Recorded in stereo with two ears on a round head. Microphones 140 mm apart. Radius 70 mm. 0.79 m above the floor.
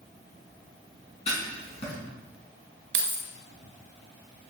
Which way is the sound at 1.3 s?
40° left (ahead or behind).